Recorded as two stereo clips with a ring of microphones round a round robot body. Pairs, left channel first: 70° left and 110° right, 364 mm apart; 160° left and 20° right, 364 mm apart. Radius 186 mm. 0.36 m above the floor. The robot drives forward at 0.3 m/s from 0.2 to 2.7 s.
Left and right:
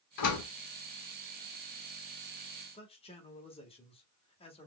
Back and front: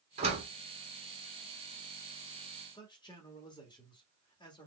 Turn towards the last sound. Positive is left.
turn(degrees=105)